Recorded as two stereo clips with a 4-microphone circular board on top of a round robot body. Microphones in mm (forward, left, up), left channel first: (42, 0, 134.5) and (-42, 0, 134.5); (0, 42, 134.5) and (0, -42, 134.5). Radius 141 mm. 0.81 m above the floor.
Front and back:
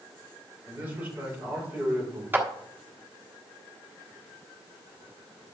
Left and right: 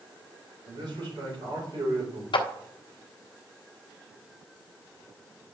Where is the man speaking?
110° right, 4 m.